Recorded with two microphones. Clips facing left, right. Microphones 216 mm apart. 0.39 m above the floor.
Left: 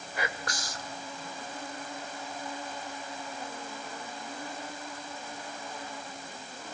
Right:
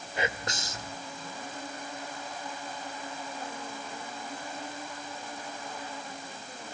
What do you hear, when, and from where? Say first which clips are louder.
0.2 s whispering: right 3 dB; 25° right (ahead or behind), 1.0 m